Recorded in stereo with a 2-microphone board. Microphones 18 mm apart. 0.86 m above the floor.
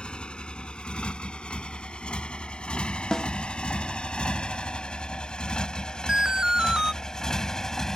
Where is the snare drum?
25° left (ahead or behind).